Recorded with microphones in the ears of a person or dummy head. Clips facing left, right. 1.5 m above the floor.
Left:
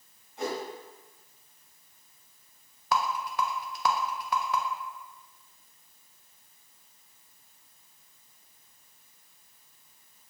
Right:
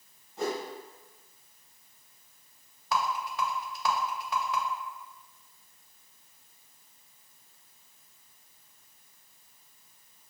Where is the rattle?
50° left (ahead or behind), 0.5 m.